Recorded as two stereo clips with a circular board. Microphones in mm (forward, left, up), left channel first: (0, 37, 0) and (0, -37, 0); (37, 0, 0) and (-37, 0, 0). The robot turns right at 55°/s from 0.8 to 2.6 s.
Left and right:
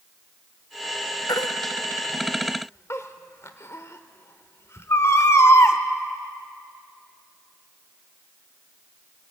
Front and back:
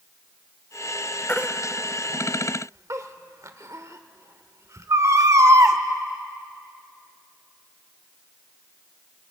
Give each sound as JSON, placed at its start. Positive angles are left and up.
{"t": 1.3, "sound": "a baby crying", "azimuth_deg": 65, "distance_m": 1.2}